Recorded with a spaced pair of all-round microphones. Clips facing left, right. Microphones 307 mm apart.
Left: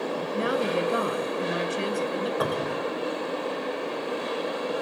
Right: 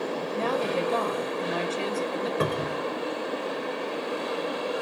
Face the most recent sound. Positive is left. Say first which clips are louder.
# even
turn(degrees=-30)  # may be behind; listen again after turning